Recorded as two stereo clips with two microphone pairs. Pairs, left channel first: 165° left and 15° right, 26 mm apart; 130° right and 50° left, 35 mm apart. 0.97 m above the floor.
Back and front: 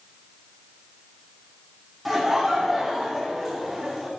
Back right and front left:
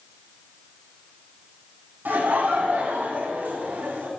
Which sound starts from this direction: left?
Laughter, at 2.0 s.